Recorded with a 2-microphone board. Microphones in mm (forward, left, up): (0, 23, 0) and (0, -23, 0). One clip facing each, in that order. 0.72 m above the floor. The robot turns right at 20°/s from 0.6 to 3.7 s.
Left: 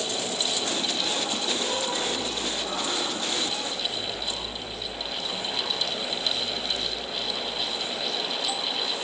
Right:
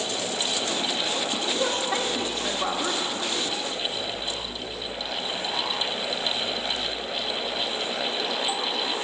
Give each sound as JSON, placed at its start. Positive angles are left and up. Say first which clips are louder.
{"t": 1.6, "sound": "a woman speaking", "louder": "right 3 dB", "side_deg": -65, "distance_m": 1.5}